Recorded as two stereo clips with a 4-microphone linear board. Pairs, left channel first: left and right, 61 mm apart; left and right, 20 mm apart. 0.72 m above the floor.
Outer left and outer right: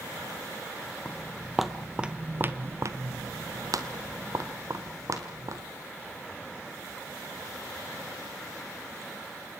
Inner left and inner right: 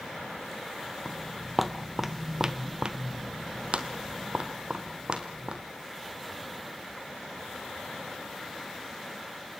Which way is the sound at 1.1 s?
10° left (ahead or behind).